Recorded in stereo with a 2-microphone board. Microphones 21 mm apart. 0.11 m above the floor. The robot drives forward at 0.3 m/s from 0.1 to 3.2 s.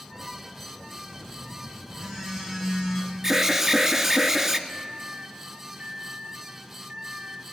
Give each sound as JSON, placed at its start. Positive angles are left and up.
{"t": 1.1, "sound": "a phone buzzing", "side_deg": -30, "distance_m": 6.5}
{"t": 3.2, "sound": "an alarm", "side_deg": -20, "distance_m": 1.3}
{"t": 4.7, "sound": "a microwave", "side_deg": -50, "distance_m": 1.7}